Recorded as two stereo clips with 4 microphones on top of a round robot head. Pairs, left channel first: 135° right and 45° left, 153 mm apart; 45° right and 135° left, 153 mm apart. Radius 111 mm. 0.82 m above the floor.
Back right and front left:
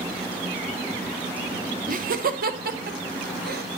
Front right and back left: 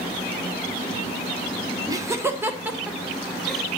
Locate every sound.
1.9 s laughter: 70° left, 1.8 m; by 3.6 s 45° left, 2 m